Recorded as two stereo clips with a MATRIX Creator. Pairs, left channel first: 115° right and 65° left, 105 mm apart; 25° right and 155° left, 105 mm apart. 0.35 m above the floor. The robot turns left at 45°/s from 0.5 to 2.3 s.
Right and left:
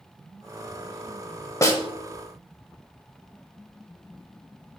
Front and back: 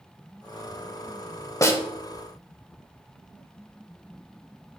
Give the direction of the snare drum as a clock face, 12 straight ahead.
2 o'clock.